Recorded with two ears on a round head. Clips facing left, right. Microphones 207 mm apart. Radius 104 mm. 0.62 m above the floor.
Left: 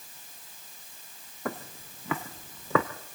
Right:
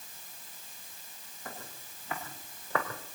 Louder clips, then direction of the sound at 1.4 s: Left 11 dB; 50° left (ahead or behind).